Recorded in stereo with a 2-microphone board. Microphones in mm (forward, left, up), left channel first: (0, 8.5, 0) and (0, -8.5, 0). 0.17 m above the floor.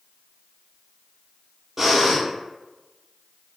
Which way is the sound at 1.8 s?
15° right (ahead or behind).